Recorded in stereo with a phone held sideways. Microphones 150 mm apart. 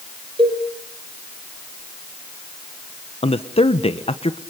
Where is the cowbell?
30° right (ahead or behind), 5 m.